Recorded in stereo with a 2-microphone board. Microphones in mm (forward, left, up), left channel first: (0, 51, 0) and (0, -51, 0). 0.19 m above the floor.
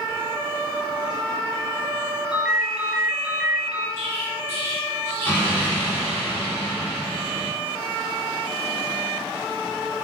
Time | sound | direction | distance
2.3 | a ringtone | 10° right (ahead or behind) | 0.8 m
4.0 | an explosion | 25° left (ahead or behind) | 1.8 m